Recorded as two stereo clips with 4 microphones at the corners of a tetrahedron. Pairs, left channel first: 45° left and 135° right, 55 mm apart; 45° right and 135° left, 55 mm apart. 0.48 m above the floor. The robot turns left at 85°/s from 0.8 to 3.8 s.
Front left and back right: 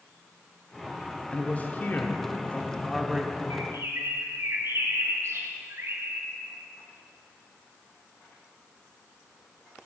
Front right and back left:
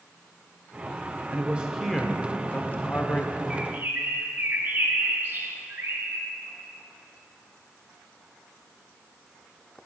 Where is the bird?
145° right, 1.6 m; by 6.3 s 170° right, 1.6 m.